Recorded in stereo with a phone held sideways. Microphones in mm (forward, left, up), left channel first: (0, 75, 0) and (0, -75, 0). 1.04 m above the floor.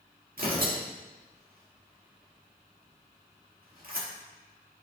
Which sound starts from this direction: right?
Tearing paper, at 0.4 s.